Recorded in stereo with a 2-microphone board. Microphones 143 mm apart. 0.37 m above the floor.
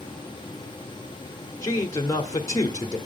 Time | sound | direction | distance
1.6 | a man speaking | 25° left (ahead or behind) | 1.0 m